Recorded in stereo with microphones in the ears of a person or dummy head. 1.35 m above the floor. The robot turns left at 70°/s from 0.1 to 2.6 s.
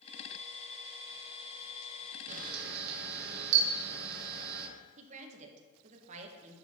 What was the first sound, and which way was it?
A camera shutter, 35° right (ahead or behind).